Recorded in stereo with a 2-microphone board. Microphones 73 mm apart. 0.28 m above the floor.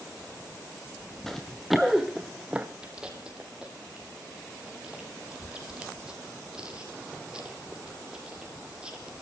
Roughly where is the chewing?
Centre.